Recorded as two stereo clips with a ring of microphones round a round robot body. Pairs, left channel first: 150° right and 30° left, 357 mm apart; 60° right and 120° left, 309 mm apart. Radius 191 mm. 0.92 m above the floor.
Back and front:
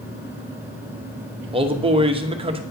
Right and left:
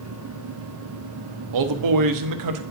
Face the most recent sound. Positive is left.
turn(degrees=105)